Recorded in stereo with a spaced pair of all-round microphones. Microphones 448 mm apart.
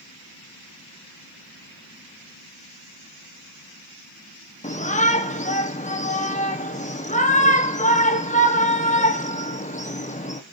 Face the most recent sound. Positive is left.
turn(degrees=15)  # may be behind; listen again after turning